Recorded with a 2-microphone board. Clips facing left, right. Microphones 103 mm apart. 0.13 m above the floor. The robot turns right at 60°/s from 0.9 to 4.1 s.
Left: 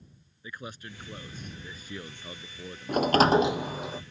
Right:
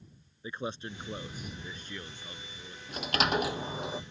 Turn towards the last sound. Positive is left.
turn(degrees=-165)